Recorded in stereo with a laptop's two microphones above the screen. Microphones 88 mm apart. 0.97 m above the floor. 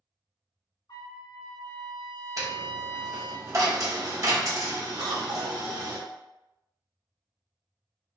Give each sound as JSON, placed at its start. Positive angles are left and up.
{"t": 0.9, "sound": "a trumpet", "side_deg": 60, "distance_m": 1.1}
{"t": 2.4, "sound": "a dropped coin", "side_deg": -40, "distance_m": 1.3}
{"t": 5.0, "sound": "a cough", "side_deg": -60, "distance_m": 1.1}